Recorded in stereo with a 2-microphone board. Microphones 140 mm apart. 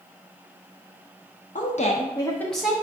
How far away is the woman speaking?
About 0.9 m.